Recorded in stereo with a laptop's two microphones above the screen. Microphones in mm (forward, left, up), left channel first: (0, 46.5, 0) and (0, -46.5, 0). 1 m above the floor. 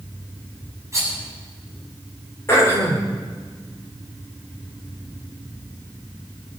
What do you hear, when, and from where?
0.9 s a rattle: 35° right (ahead or behind), 8 m
2.5 s throat clearing: 30° left (ahead or behind), 3.5 m